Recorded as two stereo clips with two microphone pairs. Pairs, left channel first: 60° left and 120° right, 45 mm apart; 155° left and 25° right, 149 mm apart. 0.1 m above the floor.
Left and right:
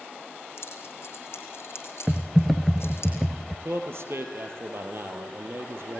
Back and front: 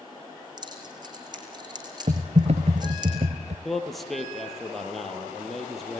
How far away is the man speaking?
About 3 m.